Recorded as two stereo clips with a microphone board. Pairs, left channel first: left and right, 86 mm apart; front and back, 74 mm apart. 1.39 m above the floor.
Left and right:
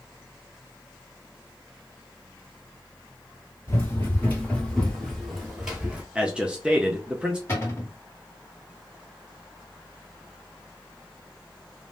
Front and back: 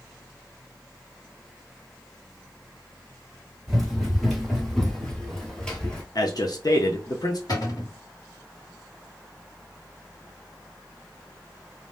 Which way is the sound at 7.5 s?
30° left.